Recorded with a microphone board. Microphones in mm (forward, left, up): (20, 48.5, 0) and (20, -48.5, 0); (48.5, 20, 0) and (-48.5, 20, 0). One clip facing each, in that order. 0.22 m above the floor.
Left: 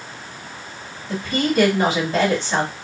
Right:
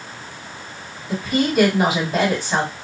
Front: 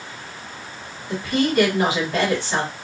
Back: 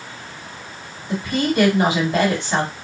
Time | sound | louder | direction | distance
1.1 | a woman speaking | right 1 dB, even | 155° right | 1.6 m